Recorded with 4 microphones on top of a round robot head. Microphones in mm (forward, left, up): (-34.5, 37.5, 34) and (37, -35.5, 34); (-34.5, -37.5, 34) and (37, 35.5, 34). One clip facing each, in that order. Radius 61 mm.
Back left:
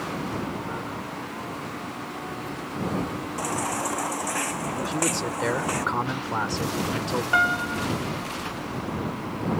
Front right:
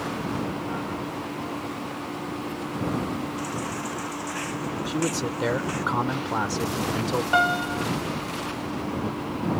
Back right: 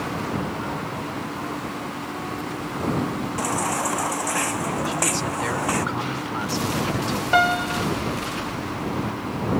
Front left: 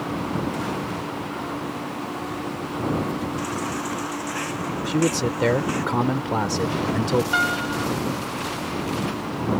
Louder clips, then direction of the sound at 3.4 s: Back left 3 dB, back right 3 dB; straight behind.